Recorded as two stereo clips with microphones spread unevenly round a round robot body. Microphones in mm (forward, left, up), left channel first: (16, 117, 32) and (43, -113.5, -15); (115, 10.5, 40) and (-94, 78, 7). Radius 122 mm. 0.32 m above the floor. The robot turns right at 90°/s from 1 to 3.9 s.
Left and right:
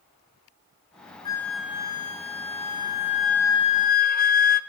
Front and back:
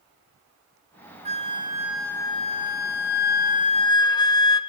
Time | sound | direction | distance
1.2 | a flute | 175° left | 1.4 m